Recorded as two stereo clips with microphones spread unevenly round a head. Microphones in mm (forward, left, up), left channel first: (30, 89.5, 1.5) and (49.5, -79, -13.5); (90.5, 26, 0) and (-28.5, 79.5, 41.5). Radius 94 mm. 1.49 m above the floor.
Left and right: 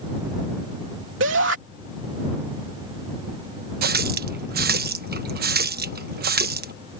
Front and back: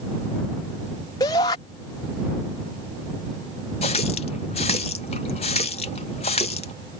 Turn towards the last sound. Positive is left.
turn(degrees=-90)